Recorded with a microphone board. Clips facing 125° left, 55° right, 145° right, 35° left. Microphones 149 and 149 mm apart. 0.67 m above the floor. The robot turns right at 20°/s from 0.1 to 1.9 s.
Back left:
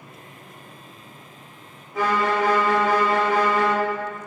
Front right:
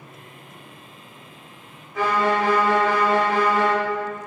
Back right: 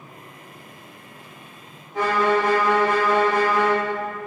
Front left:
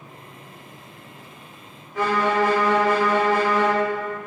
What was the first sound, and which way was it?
A violin, 165° left.